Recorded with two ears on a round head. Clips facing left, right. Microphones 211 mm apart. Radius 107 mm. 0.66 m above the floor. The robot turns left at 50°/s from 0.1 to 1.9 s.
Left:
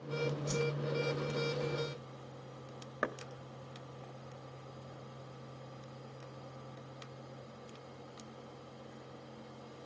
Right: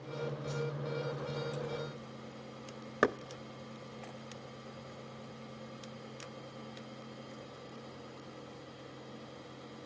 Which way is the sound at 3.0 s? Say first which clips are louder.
Right 9 dB; 55° right (ahead or behind).